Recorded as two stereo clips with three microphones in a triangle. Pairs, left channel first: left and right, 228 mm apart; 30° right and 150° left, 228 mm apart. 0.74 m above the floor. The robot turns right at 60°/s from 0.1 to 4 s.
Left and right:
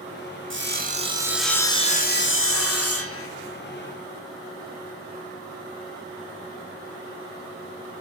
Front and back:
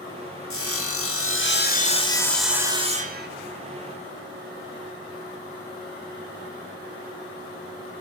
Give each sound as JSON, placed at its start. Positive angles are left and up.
{"t": 0.5, "sound": "sawing", "azimuth_deg": -55, "distance_m": 1.1}